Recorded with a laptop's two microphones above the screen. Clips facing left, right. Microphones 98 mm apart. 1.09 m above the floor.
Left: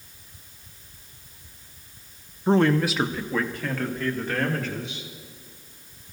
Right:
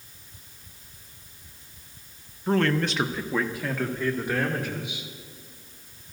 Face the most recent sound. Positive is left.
turn(degrees=-15)  # may be behind; listen again after turning